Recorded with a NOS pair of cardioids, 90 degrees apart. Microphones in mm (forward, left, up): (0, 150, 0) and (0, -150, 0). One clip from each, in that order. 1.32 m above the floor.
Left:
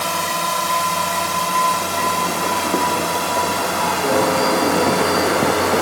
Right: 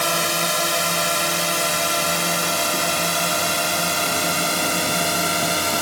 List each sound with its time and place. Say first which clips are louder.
0.0 s a drone: even; 25° right; by 5.8 s 40° right